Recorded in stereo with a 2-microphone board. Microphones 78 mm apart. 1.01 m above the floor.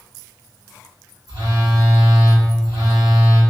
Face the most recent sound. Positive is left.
turn(degrees=-75)  # may be behind; listen again after turning